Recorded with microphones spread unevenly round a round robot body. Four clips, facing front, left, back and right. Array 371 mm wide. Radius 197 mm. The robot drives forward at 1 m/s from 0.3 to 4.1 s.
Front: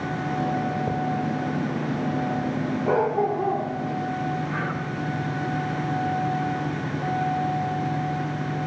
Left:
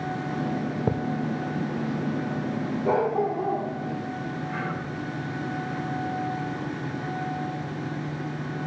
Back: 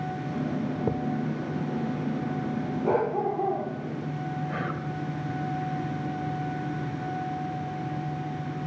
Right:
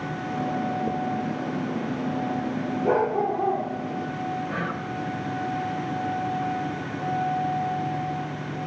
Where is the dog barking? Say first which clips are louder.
Right 1 dB, front 3 dB; 145° right, 3.5 m; by 3.7 s 155° right, 4 m.